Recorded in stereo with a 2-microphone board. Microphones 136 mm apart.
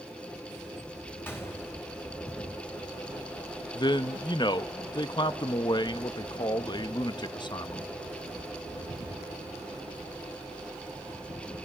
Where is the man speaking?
35° left (ahead or behind), 0.8 m.